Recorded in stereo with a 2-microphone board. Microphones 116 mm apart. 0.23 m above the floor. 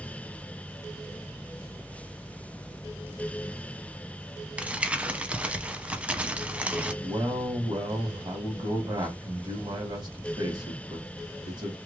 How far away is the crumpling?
About 0.6 m.